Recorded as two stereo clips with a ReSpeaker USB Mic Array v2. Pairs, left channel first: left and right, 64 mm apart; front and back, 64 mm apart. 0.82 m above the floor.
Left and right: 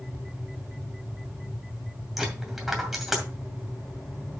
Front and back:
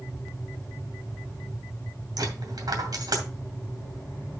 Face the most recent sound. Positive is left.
turn(degrees=-175)